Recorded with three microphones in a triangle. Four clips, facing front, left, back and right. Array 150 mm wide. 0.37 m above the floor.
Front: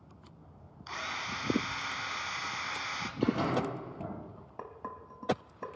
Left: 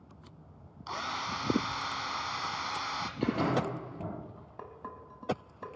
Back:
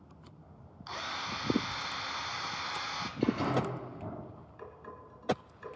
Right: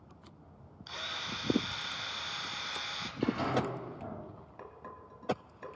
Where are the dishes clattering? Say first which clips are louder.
Left 4 dB, front 5 dB; 25° left, 1.6 m.